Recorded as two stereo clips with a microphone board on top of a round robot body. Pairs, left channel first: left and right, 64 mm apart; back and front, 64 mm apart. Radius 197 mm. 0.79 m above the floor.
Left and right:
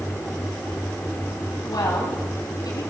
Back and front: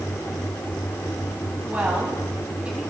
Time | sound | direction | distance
1.7 | a woman speaking | 70° left | 7 m